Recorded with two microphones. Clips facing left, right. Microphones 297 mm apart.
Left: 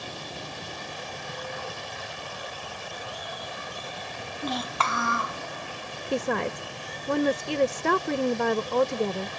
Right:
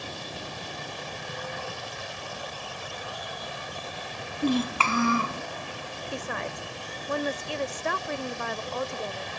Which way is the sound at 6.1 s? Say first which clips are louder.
Left 9 dB; 75° left (ahead or behind).